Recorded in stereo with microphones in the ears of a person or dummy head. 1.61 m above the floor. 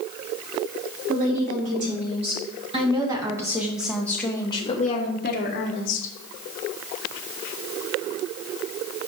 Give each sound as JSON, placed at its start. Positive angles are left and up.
{"t": 1.1, "sound": "a woman speaking", "side_deg": -45, "distance_m": 3.0}